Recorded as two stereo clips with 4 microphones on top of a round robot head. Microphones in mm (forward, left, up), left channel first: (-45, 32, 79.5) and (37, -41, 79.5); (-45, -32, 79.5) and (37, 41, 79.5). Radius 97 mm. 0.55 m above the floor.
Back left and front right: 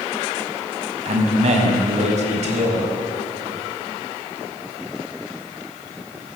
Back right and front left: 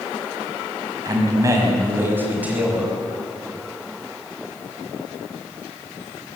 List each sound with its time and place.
1.1 s a man speaking: 15° right, 5 m; by 2.9 s 40° right, 5.5 m